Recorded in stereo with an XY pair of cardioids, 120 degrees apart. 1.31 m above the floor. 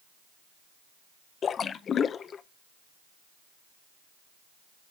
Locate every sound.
1.4 s a splash: 45° left, 0.6 m